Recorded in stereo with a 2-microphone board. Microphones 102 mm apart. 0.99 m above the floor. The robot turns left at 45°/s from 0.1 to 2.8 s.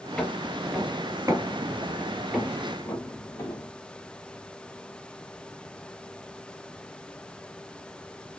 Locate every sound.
0.2 s footsteps: 10° left (ahead or behind), 1.1 m; by 3.7 s 30° left (ahead or behind), 1.8 m